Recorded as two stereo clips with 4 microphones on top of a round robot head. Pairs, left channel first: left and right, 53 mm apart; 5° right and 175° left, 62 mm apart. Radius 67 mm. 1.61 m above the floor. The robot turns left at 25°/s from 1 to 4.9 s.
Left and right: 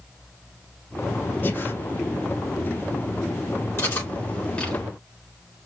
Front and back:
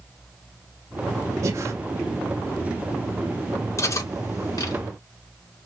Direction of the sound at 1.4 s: 140° left.